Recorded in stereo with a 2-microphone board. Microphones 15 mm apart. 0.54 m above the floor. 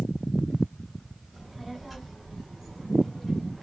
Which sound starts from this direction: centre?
A child speaking, at 1.3 s.